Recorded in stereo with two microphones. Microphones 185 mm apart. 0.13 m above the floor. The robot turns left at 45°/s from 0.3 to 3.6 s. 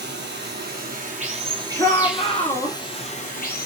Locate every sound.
0.0 s running water: 95° right, 1.0 m; by 3.7 s 120° left, 1.0 m
1.8 s a shout: 125° left, 1.6 m; by 2.8 s 75° left, 1.6 m